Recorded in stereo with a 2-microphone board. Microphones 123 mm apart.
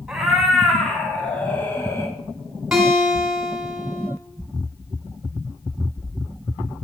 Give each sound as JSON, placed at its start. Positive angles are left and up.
{"t": 0.1, "sound": "a cat meowing", "side_deg": -5, "distance_m": 2.5}
{"t": 2.7, "sound": "a guitar", "side_deg": -5, "distance_m": 2.5}